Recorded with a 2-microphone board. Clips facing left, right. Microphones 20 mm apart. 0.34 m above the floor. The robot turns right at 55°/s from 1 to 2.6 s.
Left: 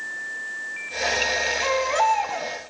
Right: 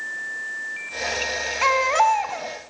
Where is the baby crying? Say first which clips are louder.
Right 6 dB; 45° right, 2.5 m; by 2.5 s 5° left, 2.5 m.